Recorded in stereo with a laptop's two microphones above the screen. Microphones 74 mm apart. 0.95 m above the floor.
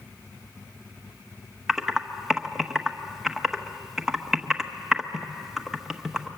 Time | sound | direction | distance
1.7 | typing on a keyboard | 5° right (ahead or behind) | 1.2 m